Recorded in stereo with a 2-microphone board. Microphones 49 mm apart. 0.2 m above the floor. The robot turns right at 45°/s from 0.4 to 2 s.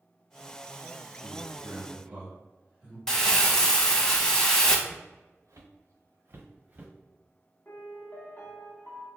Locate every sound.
1.2 s a man speaking: 20° right (ahead or behind), 1.3 m; by 3.0 s 25° right (ahead or behind), 1.3 m
3.1 s crumpling: 10° left (ahead or behind), 0.6 m
4.9 s footsteps: 70° right (ahead or behind), 1.2 m; by 6.9 s 25° right (ahead or behind), 0.9 m
7.7 s a piano: 35° left (ahead or behind), 0.8 m